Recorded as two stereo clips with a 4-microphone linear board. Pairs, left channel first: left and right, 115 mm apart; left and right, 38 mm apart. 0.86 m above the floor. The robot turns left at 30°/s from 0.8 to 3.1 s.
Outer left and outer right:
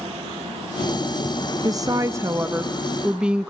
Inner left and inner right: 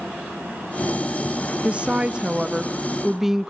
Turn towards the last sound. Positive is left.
turn(degrees=-170)